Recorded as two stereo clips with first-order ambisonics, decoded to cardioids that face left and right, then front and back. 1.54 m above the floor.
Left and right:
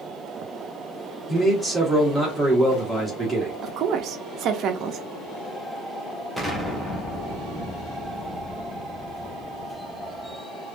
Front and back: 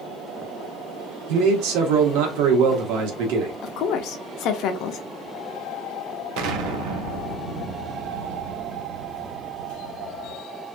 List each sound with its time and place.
1.3 s a man speaking: straight behind, 1.3 m
3.6 s a woman speaking: 40° right, 0.6 m
6.4 s an explosion: 175° left, 0.7 m